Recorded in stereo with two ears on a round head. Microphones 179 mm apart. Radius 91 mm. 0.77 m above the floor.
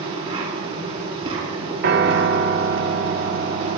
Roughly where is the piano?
Right.